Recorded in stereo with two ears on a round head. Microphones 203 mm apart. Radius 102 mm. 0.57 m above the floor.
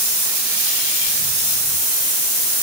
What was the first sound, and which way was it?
Only background noise.